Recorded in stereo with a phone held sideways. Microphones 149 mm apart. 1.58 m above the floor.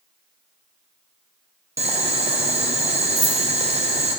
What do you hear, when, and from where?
1.8 s boiling: 45° right (ahead or behind), 0.6 m
3.1 s keys jangling: 35° right (ahead or behind), 1.8 m